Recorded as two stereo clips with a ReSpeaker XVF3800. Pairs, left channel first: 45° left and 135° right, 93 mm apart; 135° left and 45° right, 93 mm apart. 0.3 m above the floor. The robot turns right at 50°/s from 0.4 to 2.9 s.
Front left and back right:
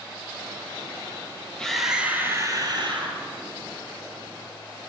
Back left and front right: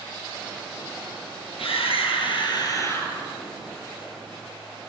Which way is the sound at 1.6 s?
125° left.